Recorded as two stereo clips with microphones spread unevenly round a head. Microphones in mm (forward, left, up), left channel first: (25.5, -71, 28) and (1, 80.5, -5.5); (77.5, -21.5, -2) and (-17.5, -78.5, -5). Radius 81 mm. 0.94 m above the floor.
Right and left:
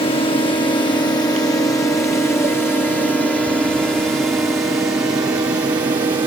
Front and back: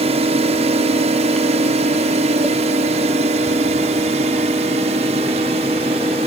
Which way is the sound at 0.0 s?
145° right.